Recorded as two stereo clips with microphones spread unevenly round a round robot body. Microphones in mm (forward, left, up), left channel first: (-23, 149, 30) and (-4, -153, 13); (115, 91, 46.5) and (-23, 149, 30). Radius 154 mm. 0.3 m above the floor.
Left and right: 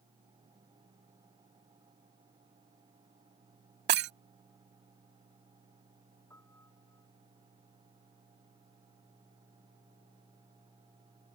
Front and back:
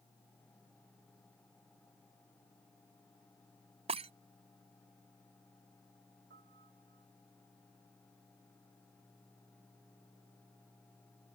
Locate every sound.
3.9 s breaking glass: 145° right
6.3 s a piano: 175° left